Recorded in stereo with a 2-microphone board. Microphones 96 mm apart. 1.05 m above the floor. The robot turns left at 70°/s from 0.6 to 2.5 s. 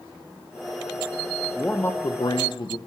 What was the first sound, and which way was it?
A man speaking, 170° left.